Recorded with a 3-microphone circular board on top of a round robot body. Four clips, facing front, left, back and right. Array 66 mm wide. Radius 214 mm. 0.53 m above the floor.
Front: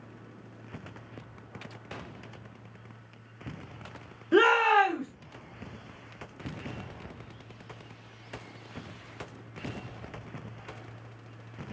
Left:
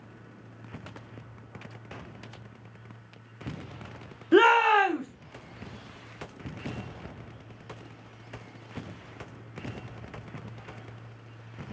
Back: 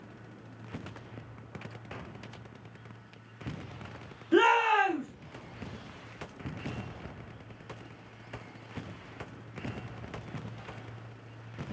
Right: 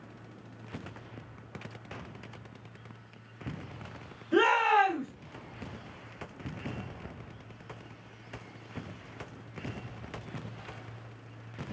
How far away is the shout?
About 2 m.